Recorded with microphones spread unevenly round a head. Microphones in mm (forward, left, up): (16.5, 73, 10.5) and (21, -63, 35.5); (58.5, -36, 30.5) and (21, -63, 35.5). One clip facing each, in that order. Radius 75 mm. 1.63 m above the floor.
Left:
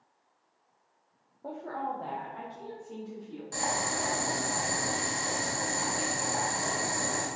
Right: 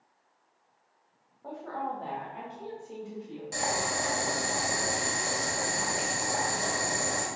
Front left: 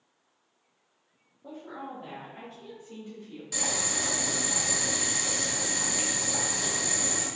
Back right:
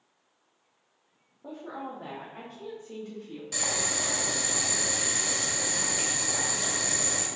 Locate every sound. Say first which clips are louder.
1.4 s a woman speaking: even, back right 2 dB; 150° left, 0.6 m; by 3.4 s 155° right, 1.3 m
3.5 s boiling: right 1 dB, even; 60° right, 1.1 m